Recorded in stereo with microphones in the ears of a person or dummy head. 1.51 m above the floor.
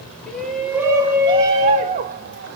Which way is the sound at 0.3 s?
5° left (ahead or behind).